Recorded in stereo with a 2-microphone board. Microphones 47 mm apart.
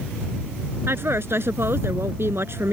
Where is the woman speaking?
60° right (ahead or behind).